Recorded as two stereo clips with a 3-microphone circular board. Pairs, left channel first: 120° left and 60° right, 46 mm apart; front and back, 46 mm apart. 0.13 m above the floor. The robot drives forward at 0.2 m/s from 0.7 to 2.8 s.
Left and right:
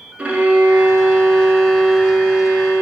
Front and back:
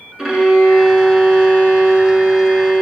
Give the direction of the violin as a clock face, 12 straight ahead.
4 o'clock.